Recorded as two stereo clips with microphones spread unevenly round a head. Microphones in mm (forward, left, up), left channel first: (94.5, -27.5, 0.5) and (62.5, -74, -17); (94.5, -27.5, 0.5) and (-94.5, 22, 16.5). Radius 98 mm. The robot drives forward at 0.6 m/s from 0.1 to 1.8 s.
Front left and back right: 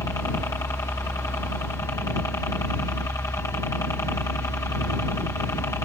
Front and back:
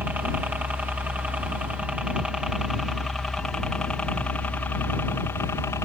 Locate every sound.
0.0 s a helicopter: 85° left; by 5.8 s 55° left